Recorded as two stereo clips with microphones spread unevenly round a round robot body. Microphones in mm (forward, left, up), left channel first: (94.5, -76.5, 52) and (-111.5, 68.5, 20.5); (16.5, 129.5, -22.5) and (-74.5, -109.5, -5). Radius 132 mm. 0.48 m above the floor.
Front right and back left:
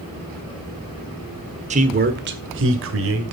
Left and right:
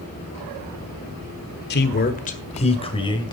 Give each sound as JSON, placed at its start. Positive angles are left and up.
{"t": 1.7, "sound": "a man speaking", "azimuth_deg": 100, "distance_m": 1.5}